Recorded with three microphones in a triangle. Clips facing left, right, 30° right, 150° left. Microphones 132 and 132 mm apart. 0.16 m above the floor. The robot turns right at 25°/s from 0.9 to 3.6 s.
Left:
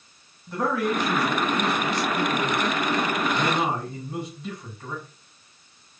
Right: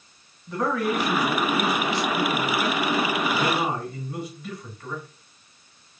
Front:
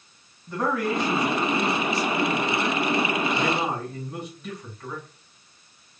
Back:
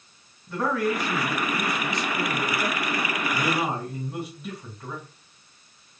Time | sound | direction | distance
0.5 | a man speaking | 10° left | 1.7 m